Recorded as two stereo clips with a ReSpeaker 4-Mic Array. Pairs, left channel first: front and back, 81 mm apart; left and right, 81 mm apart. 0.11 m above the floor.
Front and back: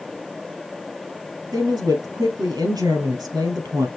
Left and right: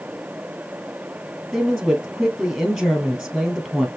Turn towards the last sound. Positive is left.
turn(degrees=-170)